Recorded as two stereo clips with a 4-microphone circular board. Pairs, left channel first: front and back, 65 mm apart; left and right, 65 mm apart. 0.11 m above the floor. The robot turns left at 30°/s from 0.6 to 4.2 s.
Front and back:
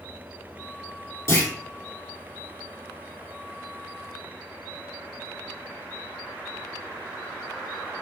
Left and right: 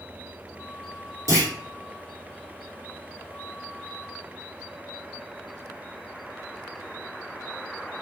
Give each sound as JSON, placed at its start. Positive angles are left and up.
{"t": 1.3, "sound": "a clunk", "azimuth_deg": -50, "distance_m": 1.8}